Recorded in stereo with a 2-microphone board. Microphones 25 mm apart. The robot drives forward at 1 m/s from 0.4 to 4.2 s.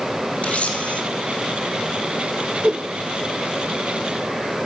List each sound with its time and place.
0.4 s a camera shutter: 50° left (ahead or behind), 1.9 m; by 1.0 s 60° left (ahead or behind), 1.7 m
2.6 s a whoosh: 35° right (ahead or behind), 0.6 m; by 2.9 s 25° right (ahead or behind), 0.7 m